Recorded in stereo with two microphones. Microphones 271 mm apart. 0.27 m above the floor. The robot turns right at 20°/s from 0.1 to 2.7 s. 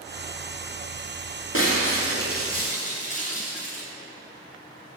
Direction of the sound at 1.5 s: 50° left (ahead or behind).